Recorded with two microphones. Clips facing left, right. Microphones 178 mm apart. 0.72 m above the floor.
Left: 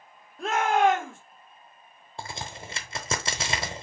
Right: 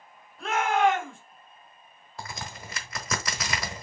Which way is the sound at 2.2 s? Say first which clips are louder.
Left 2 dB; 25° left (ahead or behind).